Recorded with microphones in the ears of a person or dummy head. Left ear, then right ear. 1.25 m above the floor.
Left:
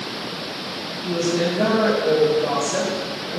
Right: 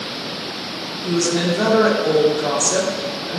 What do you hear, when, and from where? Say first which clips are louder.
1.0 s a woman speaking: right 2 dB; 55° right (ahead or behind), 1.2 m